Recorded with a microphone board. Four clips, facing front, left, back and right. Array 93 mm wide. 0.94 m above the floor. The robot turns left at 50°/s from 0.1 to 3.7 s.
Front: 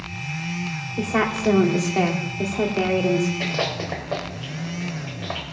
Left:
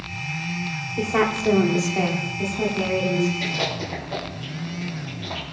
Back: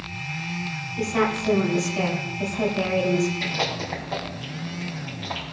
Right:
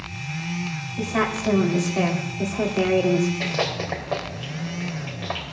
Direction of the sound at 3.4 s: 40° right.